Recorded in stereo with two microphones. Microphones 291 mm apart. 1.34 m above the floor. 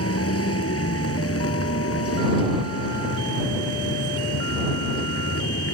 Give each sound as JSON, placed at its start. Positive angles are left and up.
{"t": 0.0, "sound": "a vehicle", "side_deg": 50}